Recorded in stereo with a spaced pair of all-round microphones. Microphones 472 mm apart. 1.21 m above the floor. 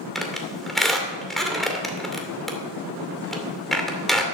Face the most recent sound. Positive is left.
turn(degrees=0)  # may be behind; listen again after turning